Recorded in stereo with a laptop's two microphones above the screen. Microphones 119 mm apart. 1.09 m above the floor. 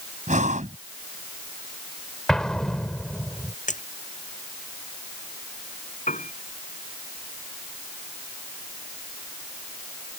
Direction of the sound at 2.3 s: 5° left (ahead or behind).